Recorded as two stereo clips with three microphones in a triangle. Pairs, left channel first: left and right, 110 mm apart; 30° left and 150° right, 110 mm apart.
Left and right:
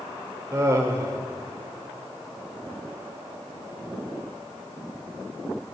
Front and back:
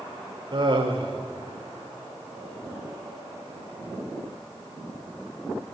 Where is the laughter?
145° right, 1.1 m.